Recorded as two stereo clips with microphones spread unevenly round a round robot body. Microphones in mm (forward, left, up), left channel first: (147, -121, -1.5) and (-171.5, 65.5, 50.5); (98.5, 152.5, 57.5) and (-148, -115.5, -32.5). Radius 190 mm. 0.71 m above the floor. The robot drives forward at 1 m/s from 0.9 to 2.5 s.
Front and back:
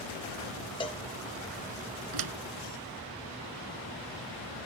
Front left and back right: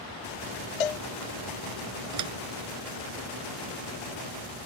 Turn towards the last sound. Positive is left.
turn(degrees=-175)